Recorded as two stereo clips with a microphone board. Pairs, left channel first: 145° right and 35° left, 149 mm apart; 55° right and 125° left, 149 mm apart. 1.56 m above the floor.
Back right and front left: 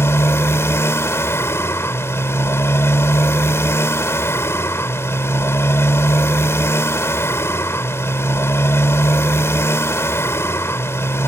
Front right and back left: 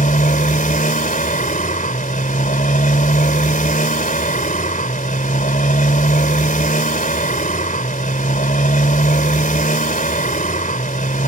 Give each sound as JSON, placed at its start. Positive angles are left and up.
{"t": 0.0, "sound": "a motorcycle", "azimuth_deg": -75}